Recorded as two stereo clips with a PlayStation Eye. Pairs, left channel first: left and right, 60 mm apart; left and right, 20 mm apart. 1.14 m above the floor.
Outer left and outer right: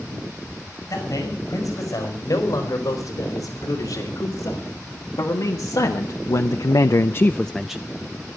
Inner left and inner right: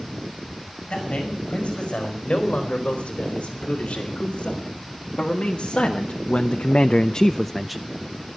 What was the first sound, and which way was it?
A man speaking, 60° left (ahead or behind).